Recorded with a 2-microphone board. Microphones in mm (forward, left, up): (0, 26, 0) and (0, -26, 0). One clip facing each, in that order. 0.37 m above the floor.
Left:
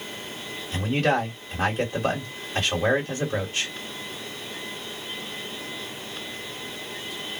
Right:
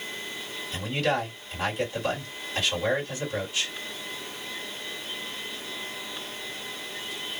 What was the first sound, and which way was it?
A man speaking, 45° left (ahead or behind).